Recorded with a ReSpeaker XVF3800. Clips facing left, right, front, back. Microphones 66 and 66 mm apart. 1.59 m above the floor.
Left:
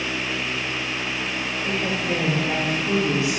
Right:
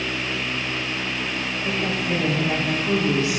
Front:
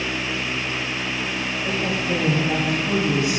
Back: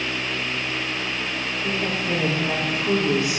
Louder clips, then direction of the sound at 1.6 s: Even, front 1 dB; 165° left.